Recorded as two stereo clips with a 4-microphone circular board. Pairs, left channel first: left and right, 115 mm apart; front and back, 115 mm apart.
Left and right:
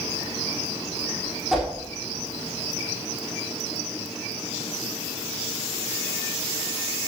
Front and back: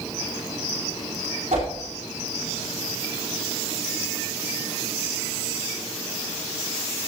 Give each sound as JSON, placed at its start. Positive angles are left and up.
{"t": 1.5, "sound": "a whoosh", "azimuth_deg": -175, "distance_m": 4.0}